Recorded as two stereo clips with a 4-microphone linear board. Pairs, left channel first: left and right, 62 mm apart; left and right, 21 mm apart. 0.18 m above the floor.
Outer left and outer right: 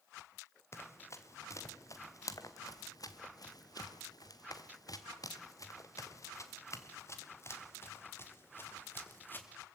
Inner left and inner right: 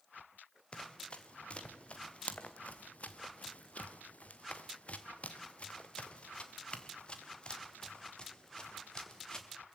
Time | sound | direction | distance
0.7 | running footsteps | 45° left (ahead or behind) | 3 m